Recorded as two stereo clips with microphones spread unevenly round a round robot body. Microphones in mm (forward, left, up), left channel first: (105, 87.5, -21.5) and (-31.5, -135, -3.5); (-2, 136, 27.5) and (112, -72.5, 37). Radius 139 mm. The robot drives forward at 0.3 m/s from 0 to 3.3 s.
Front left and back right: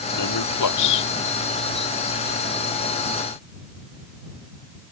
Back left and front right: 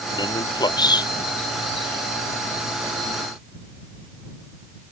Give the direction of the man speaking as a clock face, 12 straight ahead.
10 o'clock.